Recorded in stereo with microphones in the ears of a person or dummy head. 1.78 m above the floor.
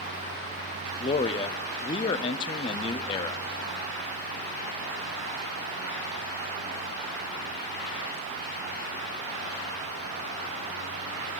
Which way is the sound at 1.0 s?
30° left (ahead or behind).